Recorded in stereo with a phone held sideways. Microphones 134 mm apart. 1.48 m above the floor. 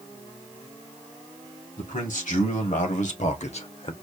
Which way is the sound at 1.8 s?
75° left (ahead or behind).